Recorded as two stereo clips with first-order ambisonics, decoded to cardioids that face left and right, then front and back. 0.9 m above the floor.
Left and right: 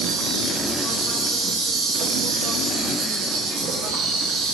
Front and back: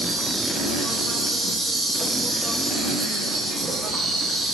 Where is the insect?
95° right, 1.4 m.